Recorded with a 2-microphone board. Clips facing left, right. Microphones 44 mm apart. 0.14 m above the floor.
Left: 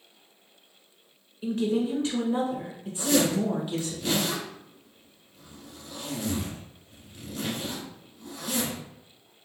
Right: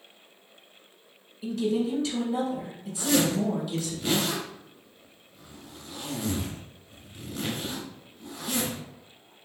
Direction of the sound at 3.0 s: 15° right (ahead or behind).